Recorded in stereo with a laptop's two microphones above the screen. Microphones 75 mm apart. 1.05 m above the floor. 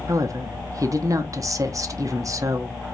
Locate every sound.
0.1 s a woman speaking: 45° right (ahead or behind), 0.7 m